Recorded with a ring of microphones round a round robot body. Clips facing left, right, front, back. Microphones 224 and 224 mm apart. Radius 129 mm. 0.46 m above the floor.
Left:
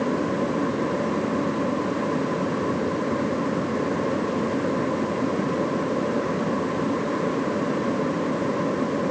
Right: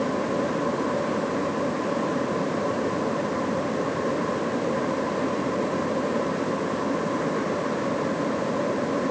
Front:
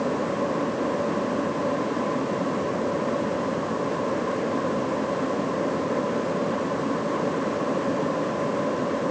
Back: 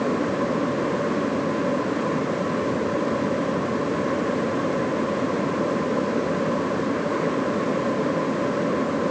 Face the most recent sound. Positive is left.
No sound to turn to.